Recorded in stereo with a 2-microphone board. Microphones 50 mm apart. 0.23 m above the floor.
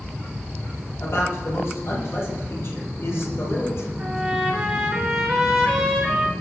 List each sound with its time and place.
1.0 s a man speaking: 60° left (ahead or behind), 7.5 m
4.0 s a trumpet: 10° right (ahead or behind), 4 m